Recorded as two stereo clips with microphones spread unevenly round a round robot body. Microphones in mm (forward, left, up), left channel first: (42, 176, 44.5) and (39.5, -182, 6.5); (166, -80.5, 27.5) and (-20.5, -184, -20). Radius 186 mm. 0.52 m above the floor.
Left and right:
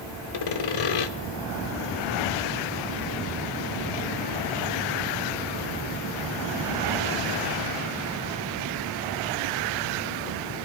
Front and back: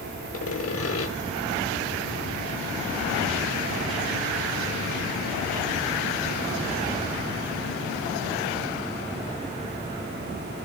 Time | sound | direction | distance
0.3 | sawing | 75° left | 1.3 m